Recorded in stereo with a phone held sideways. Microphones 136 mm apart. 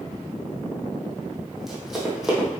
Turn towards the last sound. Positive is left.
turn(degrees=0)  # may be behind; listen again after turning